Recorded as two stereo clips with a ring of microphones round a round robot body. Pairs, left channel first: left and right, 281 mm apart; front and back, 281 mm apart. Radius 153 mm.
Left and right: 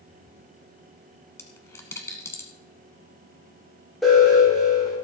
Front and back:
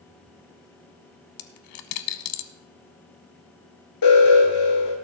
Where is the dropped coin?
10° left, 1.0 m.